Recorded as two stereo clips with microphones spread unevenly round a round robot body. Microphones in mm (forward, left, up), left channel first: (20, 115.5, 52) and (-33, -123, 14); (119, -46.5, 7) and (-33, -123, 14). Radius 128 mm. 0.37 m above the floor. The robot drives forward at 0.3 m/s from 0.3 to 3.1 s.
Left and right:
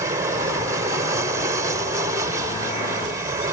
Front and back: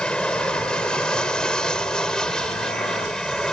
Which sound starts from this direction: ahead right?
An aircraft, at 0.0 s.